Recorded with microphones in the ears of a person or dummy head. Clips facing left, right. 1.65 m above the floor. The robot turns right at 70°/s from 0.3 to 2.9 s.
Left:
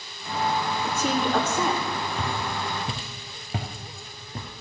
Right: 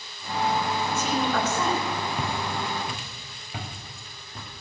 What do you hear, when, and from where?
0.8 s a woman speaking: 115° left, 3 m; by 1.8 s straight behind, 3 m
2.2 s footsteps: 10° right (ahead or behind), 2.5 m; by 4.5 s 45° left (ahead or behind), 2.5 m